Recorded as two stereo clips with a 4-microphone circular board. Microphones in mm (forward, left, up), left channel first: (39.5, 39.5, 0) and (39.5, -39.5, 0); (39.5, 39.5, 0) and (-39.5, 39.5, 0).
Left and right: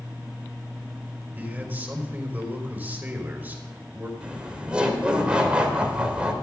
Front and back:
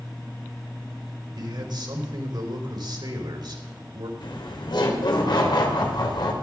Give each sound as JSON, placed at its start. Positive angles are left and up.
{"t": 1.4, "sound": "a man speaking", "azimuth_deg": -160, "distance_m": 3.5}
{"t": 4.2, "sound": "laughter", "azimuth_deg": -15, "distance_m": 3.5}